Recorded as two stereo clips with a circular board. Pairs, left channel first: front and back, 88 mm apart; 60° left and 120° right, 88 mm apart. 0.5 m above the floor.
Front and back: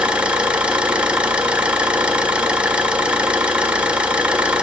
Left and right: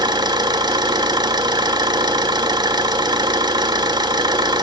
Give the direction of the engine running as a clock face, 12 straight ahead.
4 o'clock.